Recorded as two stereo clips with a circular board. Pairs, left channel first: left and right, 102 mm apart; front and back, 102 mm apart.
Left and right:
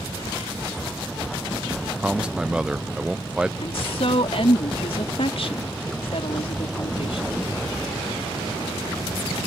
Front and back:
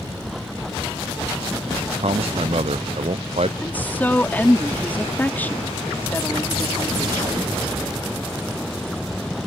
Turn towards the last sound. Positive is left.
turn(degrees=75)